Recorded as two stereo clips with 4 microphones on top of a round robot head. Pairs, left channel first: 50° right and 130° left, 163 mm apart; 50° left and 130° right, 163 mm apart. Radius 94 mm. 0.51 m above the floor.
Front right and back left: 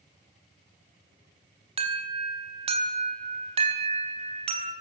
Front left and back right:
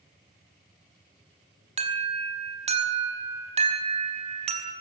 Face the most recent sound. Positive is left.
turn(degrees=180)